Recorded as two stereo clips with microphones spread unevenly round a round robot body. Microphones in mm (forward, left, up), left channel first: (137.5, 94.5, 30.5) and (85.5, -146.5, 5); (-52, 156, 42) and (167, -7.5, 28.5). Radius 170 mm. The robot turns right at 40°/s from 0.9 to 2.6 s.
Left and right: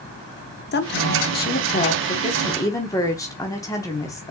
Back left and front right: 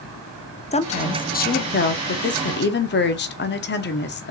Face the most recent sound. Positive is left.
turn(degrees=155)